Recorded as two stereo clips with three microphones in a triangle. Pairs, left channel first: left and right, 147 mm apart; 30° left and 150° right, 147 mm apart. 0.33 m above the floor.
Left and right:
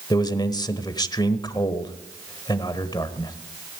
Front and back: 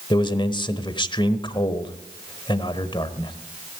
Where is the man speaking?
55° left, 1.1 m.